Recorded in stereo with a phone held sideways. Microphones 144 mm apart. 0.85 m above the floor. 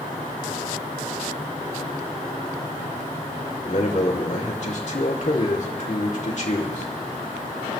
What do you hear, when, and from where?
3.6 s a man speaking: 55° left (ahead or behind), 2.5 m